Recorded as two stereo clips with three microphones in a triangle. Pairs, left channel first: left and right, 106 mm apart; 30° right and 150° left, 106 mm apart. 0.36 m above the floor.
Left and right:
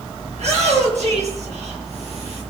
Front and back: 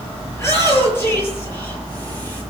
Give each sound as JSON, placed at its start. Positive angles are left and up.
{"t": 0.3, "sound": "a shout", "azimuth_deg": -95, "distance_m": 7.0}